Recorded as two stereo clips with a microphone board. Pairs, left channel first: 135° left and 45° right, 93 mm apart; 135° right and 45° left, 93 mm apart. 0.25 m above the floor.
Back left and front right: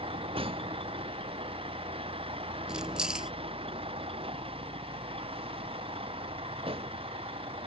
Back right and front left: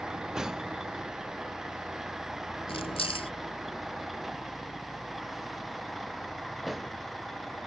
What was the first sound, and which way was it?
A vehicle, 40° right.